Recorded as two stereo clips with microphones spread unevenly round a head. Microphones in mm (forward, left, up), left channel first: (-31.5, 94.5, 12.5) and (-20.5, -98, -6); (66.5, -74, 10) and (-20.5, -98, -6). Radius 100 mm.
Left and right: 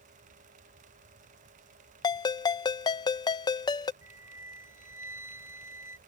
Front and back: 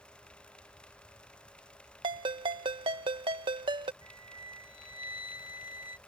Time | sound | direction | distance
2.0 | a ringtone | 150° left | ?
4.0 | a flute | 5° right | ?